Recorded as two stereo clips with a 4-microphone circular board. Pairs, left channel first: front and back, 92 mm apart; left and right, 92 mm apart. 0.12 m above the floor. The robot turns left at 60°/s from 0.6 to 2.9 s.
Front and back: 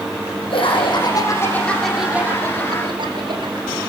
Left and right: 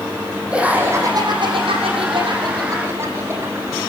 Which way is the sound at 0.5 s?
15° right.